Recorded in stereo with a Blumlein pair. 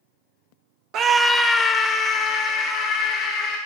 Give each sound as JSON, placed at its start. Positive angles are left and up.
{"t": 0.9, "sound": "a scream", "azimuth_deg": -35, "distance_m": 0.5}